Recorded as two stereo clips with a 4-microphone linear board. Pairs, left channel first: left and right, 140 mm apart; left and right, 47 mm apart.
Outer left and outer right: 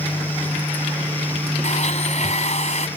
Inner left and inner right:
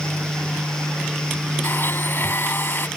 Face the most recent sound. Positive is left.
turn(degrees=60)  # may be behind; listen again after turning